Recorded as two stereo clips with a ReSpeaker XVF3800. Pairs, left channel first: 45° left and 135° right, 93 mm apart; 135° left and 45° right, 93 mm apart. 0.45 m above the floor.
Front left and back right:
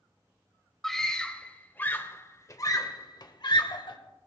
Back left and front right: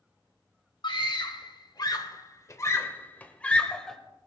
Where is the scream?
130° left, 1.7 m; by 4.0 s 50° left, 1.6 m.